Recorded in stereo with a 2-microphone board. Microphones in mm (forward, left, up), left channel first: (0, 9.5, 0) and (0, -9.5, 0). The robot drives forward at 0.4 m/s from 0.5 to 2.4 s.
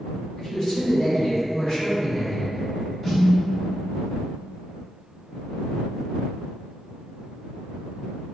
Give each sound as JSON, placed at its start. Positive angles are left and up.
{"t": 0.4, "sound": "a man speaking", "side_deg": 40, "distance_m": 1.8}
{"t": 3.0, "sound": "a snare drum", "side_deg": 25, "distance_m": 1.7}